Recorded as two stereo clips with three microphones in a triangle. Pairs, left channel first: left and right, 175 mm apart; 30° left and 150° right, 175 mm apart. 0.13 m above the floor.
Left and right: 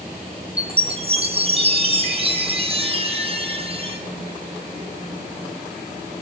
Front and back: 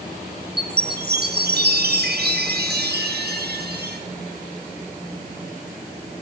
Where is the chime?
145° right, 1.6 m.